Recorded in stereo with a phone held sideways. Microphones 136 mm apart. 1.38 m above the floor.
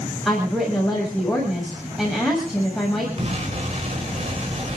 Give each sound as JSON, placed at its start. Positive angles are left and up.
{"t": 0.2, "sound": "a woman speaking", "side_deg": 0, "distance_m": 7.0}
{"t": 3.2, "sound": "an explosion", "side_deg": -50, "distance_m": 5.0}